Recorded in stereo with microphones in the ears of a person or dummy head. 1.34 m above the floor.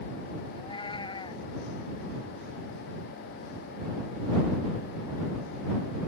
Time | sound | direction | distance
0.5 | a cat meowing | 25° left (ahead or behind) | ?